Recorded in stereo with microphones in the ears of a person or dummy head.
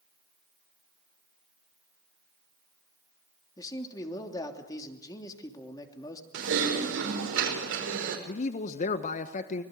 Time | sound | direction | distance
3.6 | a man speaking | 25° left (ahead or behind) | 3 m
6.3 | typing on a keyboard | 80° right | 5.5 m
8.3 | a man speaking | 45° left (ahead or behind) | 1.0 m